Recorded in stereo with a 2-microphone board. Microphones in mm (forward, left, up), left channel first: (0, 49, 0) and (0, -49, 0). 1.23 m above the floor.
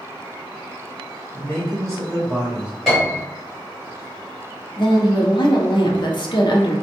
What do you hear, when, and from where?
1.3 s a man speaking: 15° left (ahead or behind), 1.7 m; by 2.7 s 10° right (ahead or behind), 2 m
2.9 s a piano: 5° left (ahead or behind), 1.9 m
4.8 s a woman speaking: 50° left (ahead or behind), 0.6 m